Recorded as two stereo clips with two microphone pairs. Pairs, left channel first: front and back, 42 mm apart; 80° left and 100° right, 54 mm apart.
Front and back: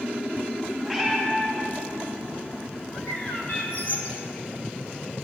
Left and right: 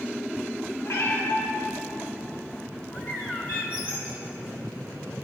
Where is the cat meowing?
95° left, 6 m.